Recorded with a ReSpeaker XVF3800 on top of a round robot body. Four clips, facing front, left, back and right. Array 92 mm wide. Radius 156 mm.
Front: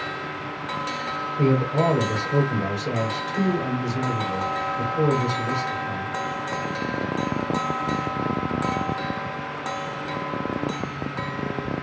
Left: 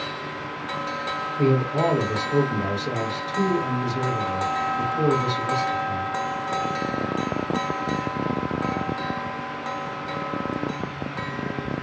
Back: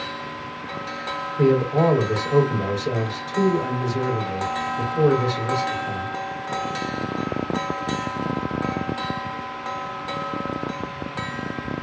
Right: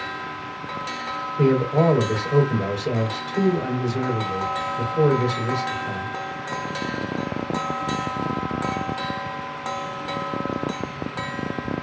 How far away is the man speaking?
About 3 m.